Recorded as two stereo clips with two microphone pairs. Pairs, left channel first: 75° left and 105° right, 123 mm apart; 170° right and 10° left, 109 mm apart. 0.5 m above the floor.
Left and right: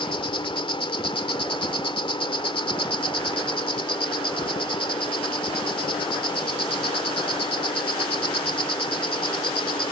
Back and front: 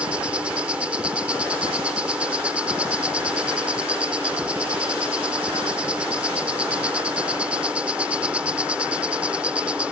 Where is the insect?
85° left.